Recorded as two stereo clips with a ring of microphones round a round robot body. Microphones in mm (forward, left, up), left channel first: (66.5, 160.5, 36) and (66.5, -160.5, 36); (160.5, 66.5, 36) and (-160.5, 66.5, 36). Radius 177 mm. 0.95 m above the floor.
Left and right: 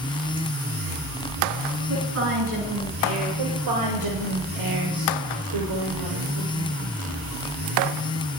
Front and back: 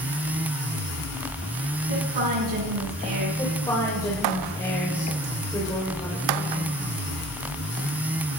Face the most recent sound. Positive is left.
turn(degrees=-80)